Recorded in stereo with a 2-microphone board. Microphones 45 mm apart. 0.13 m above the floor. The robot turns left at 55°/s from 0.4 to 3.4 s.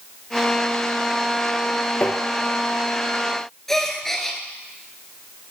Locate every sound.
2.0 s tapping: 45° left (ahead or behind), 0.9 m; by 2.2 s 40° left (ahead or behind), 0.9 m
3.7 s a gasp: 10° left (ahead or behind), 0.7 m